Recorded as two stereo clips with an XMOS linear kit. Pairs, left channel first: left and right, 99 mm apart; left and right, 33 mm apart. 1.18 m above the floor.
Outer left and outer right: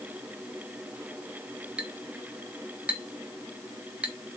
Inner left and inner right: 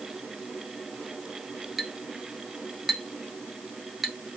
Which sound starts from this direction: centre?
A clink, at 1.8 s.